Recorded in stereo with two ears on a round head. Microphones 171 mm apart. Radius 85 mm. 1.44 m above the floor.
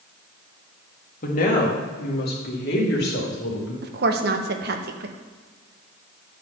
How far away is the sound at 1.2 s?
About 1.8 m.